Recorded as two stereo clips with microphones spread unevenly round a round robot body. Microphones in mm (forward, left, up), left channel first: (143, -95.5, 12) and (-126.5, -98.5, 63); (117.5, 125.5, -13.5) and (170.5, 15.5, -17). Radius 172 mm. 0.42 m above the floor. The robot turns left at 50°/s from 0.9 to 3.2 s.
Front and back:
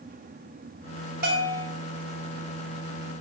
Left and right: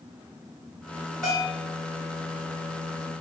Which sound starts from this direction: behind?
A bell, at 1.2 s.